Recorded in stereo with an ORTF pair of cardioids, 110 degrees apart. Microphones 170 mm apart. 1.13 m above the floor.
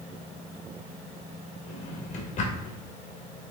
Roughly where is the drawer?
Ahead left.